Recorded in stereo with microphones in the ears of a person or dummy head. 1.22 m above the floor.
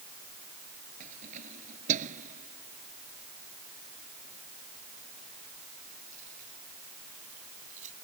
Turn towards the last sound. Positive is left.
turn(degrees=-45)  # may be behind; listen again after turning